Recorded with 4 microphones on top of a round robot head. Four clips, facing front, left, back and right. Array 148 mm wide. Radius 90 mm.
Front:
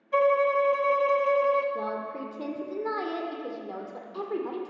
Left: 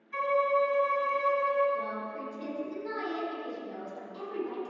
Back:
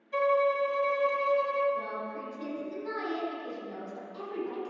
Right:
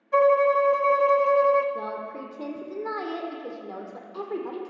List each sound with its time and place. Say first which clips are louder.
0.1 s a violin: right 8 dB, front 4 dB; 65° right, 0.7 m
1.8 s a woman speaking: right 2 dB, front 3 dB; 45° right, 1.7 m